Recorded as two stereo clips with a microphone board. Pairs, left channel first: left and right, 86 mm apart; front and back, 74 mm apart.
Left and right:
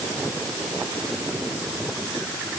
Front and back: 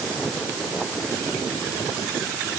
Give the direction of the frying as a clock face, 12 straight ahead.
I don't hear frying.